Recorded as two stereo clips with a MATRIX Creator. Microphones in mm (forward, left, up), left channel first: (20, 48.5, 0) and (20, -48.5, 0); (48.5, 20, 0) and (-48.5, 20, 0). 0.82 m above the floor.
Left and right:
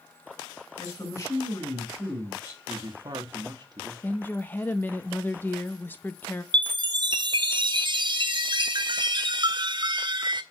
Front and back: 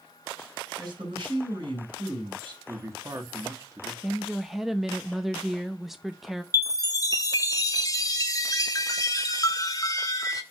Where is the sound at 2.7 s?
125° right, 1.5 m.